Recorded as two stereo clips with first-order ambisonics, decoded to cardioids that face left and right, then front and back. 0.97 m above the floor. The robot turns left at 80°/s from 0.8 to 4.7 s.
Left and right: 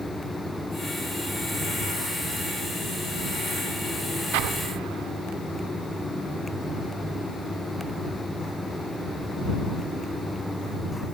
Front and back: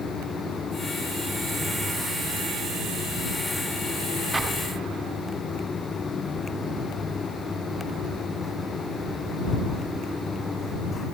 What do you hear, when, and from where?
4.3 s an explosion: 95° right; by 5.1 s 125° right